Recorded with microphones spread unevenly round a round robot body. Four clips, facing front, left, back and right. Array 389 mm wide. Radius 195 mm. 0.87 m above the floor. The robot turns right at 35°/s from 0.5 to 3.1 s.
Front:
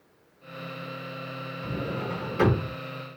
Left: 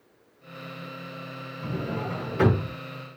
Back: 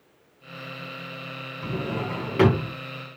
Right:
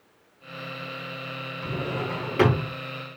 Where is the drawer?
175° left, 5.5 m; by 2.8 s 145° right, 5.5 m.